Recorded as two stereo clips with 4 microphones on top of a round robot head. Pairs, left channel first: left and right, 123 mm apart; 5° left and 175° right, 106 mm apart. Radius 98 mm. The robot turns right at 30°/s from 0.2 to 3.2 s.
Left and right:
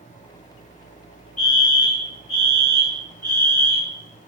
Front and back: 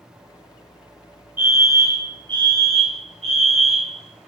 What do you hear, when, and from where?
1.4 s a fire alarm: 115° left, 5.5 m; by 4.3 s 165° left, 5.5 m